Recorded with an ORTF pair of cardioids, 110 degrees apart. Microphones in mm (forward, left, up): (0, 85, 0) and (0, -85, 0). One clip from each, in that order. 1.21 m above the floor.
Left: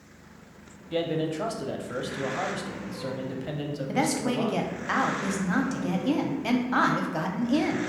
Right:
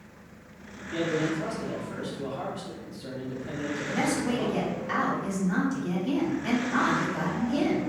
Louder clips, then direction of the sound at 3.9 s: Left 2 dB; 35° left.